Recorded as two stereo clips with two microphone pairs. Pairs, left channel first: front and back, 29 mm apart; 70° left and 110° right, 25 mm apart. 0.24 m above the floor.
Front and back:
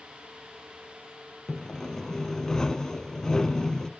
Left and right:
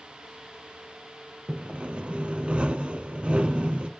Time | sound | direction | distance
1.5 | sawing | 70° right | 0.6 m